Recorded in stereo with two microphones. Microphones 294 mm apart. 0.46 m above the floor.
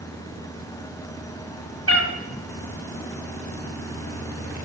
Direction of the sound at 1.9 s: 50° left (ahead or behind).